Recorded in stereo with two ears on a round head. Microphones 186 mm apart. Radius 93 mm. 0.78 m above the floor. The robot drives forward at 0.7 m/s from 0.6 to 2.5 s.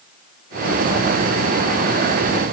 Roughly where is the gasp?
No gasp in this recording.